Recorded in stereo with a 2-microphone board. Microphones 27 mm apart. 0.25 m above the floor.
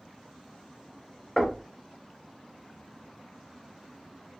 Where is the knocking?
20° left (ahead or behind), 0.7 m.